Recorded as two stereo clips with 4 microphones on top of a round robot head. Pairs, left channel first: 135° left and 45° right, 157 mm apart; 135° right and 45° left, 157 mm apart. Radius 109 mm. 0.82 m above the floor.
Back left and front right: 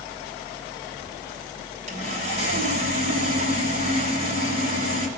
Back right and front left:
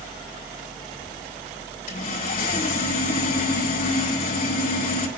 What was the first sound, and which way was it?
Sawing, 100° right.